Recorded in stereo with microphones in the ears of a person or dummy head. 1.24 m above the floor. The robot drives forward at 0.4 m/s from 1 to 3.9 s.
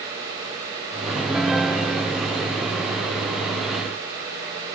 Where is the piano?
5° right (ahead or behind); by 3.5 s 10° right (ahead or behind).